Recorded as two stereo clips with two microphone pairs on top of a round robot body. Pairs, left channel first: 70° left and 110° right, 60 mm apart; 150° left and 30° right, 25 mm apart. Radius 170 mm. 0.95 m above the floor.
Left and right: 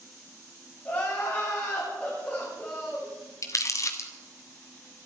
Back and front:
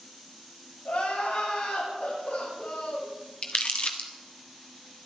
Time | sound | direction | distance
0.8 | crying | 140° left | 7.5 m
3.4 | crumpling | 110° left | 1.4 m